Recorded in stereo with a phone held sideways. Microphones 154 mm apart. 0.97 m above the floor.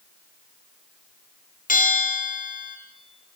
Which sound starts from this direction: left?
A bell, at 1.7 s.